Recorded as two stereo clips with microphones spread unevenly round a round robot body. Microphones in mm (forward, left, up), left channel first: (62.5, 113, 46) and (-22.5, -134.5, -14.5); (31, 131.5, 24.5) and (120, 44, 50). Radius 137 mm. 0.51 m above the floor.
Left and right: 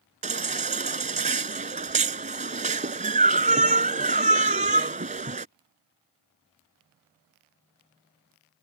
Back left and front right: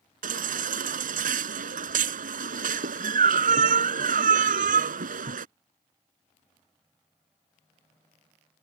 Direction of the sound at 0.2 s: 45° right.